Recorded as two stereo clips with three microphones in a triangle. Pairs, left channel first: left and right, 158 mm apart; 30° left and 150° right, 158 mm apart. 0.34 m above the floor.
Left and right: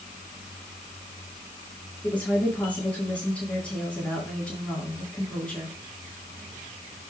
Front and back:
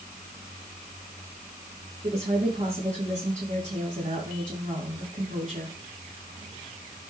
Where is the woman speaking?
170° left, 5.5 m.